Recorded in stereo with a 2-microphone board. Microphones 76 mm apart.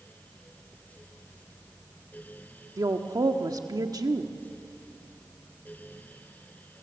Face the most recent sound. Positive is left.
turn(degrees=-55)  # may be behind; listen again after turning